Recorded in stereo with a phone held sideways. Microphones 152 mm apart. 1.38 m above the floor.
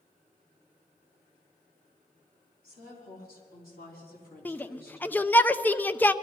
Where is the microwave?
I don't hear a microwave.